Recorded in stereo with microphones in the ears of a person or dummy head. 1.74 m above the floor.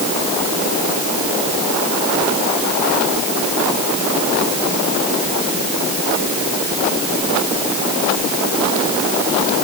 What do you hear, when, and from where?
Only background noise.